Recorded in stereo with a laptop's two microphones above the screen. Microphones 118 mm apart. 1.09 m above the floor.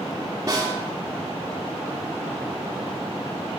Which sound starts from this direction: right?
A snare drum, at 0.5 s.